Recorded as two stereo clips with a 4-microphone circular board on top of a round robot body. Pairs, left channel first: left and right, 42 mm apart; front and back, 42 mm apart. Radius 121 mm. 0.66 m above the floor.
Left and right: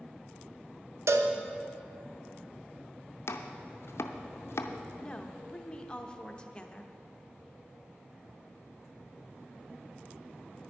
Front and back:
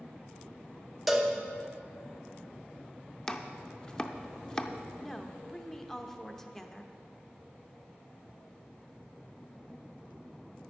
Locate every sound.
1.1 s a cowbell: 90° right, 0.7 m
3.3 s chopping: 70° left, 0.5 m
5.0 s a woman speaking: 65° left, 1.0 m